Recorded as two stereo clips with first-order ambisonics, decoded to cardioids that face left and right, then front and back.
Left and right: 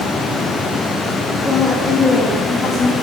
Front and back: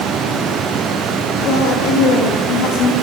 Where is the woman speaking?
15° left, 0.7 m; by 2.9 s 25° left, 1.5 m.